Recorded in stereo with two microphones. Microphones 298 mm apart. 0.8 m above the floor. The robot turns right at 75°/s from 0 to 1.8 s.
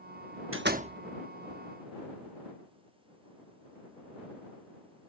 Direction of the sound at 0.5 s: 45° right.